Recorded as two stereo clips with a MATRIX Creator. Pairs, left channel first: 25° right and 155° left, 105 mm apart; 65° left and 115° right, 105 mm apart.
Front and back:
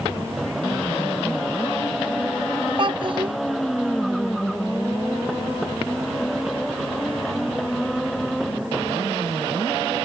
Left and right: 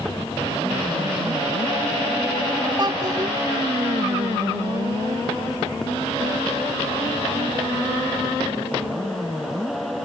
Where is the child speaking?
165° right.